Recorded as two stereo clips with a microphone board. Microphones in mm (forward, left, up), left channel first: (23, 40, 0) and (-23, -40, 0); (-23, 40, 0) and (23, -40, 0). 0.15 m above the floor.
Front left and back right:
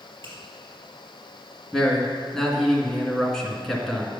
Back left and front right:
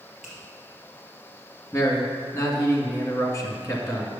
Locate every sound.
0.2 s a finger snap: 145° right, 3.5 m
1.7 s a man speaking: 140° left, 1.7 m